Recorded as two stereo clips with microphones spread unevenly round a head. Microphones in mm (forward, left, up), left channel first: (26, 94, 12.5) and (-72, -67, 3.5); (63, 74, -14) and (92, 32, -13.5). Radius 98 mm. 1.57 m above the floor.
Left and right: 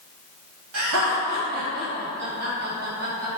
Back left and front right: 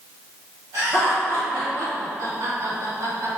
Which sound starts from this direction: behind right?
Laughter, at 0.7 s.